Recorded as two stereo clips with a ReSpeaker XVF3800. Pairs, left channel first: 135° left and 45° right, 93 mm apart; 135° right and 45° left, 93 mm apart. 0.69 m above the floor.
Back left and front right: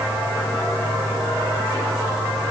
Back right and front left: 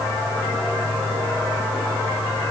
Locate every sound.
Only background noise.